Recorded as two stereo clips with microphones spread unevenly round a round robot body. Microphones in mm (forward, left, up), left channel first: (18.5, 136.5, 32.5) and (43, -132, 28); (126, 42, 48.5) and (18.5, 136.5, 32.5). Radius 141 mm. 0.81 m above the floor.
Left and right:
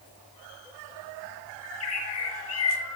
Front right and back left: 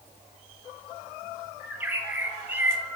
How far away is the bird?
About 9 m.